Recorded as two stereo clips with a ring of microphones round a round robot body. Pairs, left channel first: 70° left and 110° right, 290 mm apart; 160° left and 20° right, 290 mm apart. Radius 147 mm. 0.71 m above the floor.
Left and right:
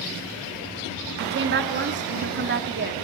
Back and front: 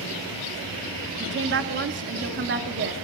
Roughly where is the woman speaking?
Ahead right.